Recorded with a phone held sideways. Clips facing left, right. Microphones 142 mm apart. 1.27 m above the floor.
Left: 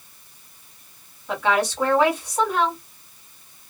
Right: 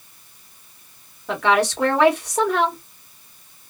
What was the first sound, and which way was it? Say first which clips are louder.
A woman speaking: right 3 dB; 80° right.